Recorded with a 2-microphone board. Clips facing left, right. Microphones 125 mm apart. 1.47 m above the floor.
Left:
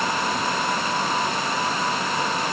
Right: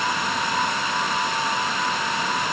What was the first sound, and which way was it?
Only background noise.